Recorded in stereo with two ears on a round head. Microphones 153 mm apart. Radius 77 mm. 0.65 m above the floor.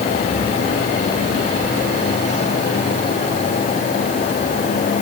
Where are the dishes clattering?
I don't hear dishes clattering.